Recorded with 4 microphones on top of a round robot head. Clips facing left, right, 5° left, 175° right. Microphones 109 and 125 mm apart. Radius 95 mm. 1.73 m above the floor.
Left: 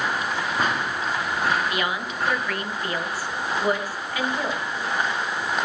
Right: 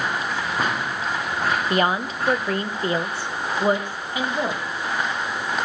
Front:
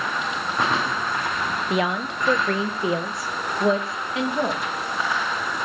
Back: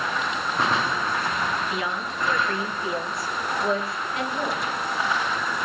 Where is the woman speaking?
40° right, 1.2 m; by 4.6 s 20° right, 3 m.